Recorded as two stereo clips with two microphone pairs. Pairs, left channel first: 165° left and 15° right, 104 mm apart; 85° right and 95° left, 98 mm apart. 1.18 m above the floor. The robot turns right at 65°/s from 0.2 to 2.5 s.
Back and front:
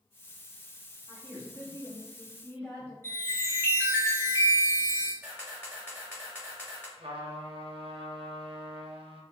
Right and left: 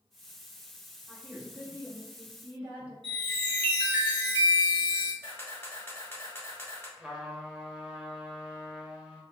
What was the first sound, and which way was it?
A woman speaking, 5° right.